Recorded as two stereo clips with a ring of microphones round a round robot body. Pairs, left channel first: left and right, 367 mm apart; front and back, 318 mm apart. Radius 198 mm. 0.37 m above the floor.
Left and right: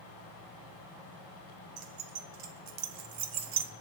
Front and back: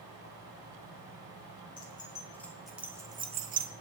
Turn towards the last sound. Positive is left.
turn(degrees=-140)